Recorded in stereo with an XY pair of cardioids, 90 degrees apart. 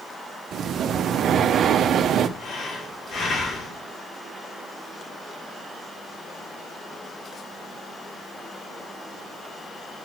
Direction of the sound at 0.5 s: 70° right.